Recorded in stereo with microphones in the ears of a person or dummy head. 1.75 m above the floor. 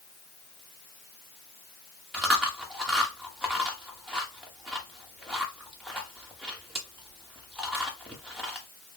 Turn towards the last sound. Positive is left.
turn(degrees=-5)  # may be behind; listen again after turning